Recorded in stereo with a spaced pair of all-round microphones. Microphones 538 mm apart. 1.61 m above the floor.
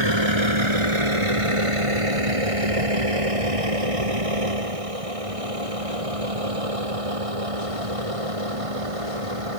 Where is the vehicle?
50° right (ahead or behind); by 9.6 s 75° right (ahead or behind).